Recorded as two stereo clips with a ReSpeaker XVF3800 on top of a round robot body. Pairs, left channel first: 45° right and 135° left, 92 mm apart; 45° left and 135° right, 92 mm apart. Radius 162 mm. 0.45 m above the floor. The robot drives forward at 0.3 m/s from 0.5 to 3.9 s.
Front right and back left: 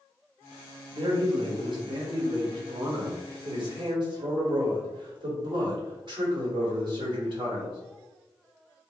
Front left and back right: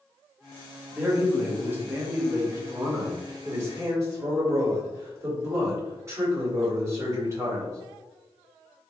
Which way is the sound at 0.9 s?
150° left.